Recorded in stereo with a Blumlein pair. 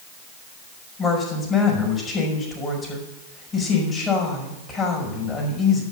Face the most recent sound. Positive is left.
turn(degrees=15)